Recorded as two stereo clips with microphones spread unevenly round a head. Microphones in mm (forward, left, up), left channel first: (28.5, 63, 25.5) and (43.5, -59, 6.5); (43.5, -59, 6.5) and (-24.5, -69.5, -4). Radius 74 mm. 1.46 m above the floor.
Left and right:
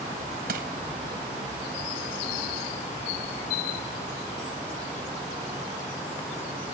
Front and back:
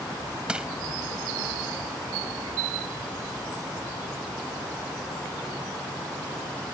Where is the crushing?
90° right.